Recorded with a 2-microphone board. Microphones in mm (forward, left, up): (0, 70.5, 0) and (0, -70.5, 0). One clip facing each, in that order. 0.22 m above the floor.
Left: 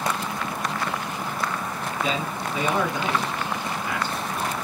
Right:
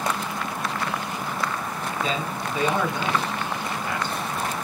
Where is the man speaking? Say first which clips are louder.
Left 1 dB; 10° left (ahead or behind), 2.5 m.